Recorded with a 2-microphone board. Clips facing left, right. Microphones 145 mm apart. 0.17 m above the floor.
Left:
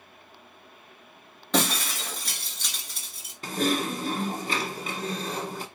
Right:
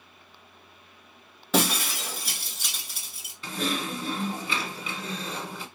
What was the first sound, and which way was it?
Breaking glass, 5° right (ahead or behind).